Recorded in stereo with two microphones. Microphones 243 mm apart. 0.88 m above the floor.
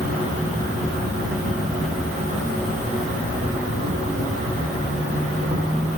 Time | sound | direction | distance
0.0 | an insect | 30° right (ahead or behind) | 2.5 m